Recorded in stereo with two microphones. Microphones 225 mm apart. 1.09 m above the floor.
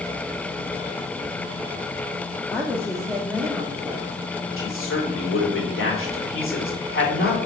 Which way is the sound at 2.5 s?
10° left (ahead or behind).